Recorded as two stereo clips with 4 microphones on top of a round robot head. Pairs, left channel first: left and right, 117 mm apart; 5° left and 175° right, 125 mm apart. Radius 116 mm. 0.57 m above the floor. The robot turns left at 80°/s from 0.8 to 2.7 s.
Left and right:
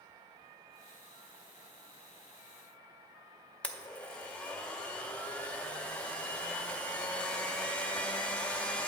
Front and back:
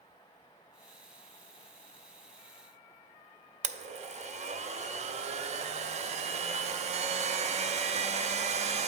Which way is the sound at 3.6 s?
170° left.